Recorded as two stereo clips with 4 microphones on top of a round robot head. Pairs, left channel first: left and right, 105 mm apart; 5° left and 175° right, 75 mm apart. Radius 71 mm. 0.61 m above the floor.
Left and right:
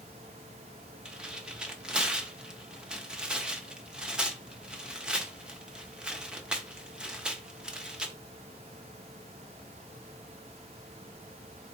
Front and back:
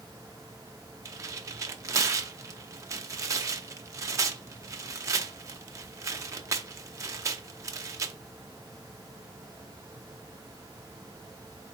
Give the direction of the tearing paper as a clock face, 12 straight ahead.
6 o'clock.